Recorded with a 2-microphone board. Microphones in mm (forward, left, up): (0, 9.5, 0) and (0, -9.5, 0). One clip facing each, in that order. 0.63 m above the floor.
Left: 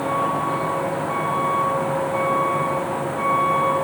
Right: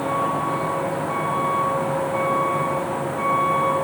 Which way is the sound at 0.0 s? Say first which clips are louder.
Left 1 dB; centre (ahead or behind).